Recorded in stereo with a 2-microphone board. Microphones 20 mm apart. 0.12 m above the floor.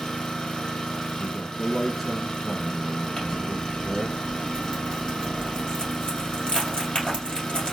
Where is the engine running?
40° left (ahead or behind), 1.3 m.